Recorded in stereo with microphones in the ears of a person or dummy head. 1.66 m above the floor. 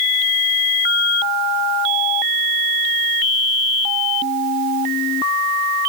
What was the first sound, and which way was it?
Only background noise.